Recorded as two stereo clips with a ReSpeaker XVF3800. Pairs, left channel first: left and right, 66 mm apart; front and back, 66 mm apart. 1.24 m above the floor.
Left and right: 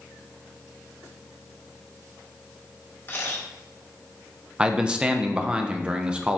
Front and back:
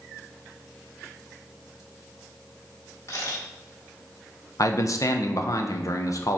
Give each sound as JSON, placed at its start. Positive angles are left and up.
{"t": 3.1, "sound": "a camera shutter", "azimuth_deg": 40, "distance_m": 2.0}
{"t": 4.6, "sound": "a man speaking", "azimuth_deg": -15, "distance_m": 0.7}